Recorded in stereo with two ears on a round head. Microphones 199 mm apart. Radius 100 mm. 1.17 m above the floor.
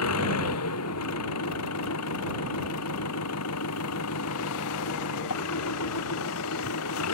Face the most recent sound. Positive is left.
turn(degrees=75)  # may be behind; listen again after turning